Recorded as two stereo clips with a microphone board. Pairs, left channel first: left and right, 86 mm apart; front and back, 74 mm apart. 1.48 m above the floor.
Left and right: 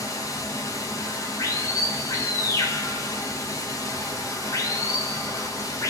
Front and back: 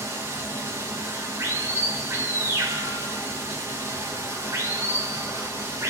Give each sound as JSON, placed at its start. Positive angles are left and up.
{"t": 0.0, "sound": "running water", "azimuth_deg": 135, "distance_m": 0.9}